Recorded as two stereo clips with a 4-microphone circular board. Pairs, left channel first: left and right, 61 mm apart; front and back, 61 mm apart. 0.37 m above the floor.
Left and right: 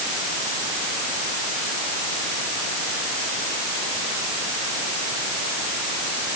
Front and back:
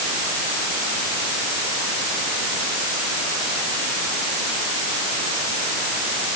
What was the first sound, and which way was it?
Only background noise.